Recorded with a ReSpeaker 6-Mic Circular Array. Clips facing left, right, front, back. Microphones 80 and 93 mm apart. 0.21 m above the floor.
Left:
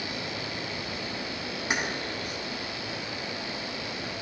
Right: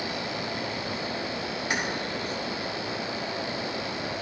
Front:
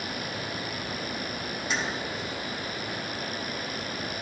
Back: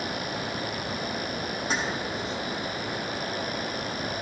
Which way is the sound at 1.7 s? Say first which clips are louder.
Even, back 1 dB; 150° left.